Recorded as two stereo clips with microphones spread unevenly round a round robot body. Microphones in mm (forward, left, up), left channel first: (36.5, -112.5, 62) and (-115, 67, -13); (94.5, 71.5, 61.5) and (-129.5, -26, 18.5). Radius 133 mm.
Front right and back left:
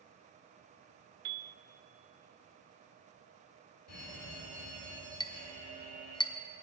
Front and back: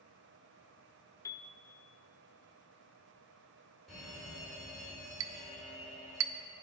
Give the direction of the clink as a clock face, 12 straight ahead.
4 o'clock.